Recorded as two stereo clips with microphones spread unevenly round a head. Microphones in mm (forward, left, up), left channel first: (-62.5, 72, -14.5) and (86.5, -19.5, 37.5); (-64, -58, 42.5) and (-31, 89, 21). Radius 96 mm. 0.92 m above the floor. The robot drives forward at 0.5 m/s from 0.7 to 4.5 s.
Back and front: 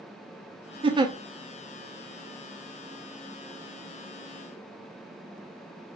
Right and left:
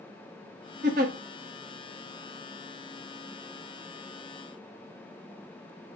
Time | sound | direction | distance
0.8 | a giggle | 30° left | 0.7 m